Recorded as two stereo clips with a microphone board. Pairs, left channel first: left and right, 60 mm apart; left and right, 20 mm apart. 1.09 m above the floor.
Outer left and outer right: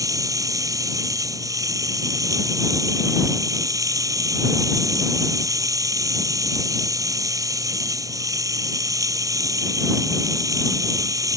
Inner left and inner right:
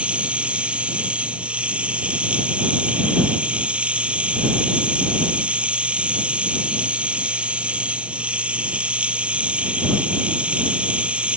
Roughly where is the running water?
Right.